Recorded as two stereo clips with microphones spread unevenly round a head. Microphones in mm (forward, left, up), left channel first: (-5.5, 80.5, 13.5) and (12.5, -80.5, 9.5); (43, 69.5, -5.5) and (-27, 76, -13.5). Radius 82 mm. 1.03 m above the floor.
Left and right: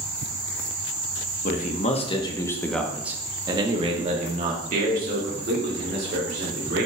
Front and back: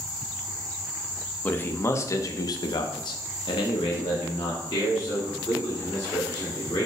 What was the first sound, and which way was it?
A man speaking, 60° left.